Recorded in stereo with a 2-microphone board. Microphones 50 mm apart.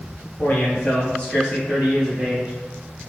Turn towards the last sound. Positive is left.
turn(degrees=0)  # may be behind; listen again after turning